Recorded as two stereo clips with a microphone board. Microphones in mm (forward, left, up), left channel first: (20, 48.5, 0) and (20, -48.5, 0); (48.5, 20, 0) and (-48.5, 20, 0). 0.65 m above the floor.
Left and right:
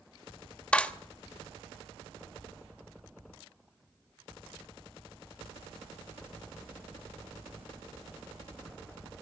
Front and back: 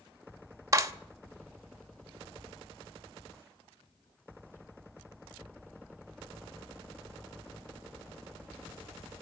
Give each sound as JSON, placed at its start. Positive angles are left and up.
{"t": 0.7, "sound": "a clap", "azimuth_deg": 160, "distance_m": 1.0}